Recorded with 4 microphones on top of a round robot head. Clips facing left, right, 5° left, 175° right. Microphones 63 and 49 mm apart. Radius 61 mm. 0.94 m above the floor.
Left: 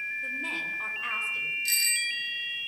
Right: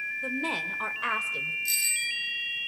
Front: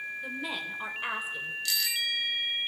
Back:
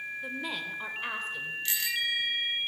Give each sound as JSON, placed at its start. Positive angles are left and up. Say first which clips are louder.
{"t": 0.2, "sound": "a woman speaking", "louder": "right 2 dB, back 1 dB", "azimuth_deg": -85, "distance_m": 3.5}
{"t": 1.6, "sound": "a bicycle bell", "louder": "left 1 dB, back 1 dB", "azimuth_deg": 125, "distance_m": 6.5}